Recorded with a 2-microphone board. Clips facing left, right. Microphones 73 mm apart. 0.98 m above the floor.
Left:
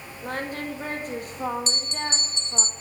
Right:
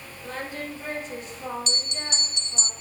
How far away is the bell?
About 0.6 m.